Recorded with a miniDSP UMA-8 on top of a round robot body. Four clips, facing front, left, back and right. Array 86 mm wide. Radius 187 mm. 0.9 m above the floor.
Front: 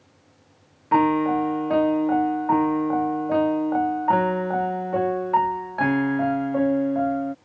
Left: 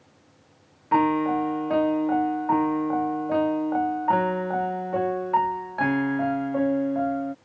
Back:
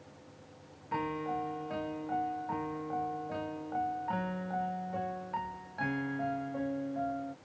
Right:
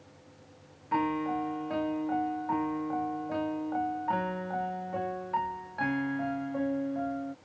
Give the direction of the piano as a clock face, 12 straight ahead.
11 o'clock.